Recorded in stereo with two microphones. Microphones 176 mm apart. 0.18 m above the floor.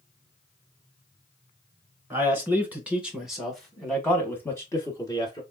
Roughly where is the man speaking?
Centre.